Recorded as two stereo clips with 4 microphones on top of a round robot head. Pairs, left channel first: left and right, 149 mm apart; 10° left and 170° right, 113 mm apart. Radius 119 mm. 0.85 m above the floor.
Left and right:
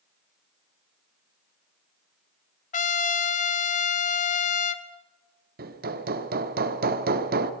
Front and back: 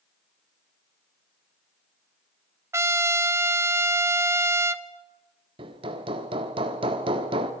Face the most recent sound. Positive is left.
turn(degrees=-115)